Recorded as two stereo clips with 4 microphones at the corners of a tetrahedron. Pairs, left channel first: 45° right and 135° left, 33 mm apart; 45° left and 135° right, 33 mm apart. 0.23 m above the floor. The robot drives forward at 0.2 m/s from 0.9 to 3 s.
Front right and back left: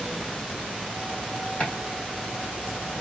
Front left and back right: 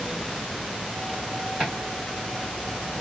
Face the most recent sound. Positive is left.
turn(degrees=-100)